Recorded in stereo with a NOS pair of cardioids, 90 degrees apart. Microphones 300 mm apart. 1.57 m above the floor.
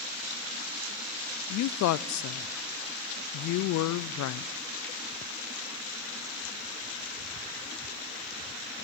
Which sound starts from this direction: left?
A woman speaking, at 1.5 s.